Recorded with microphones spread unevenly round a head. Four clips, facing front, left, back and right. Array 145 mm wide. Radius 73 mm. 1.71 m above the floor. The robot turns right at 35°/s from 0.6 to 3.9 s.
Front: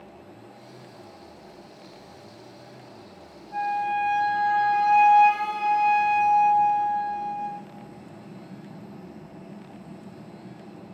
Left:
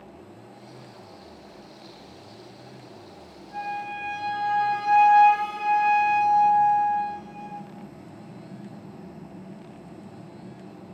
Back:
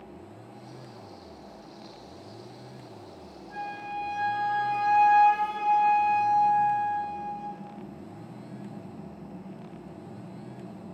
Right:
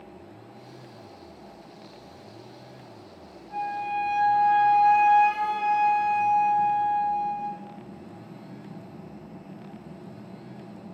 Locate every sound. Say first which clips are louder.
3.5 s a flute: right 3 dB, front 10 dB; 155° right, 3 m; by 7.6 s 140° right, 3 m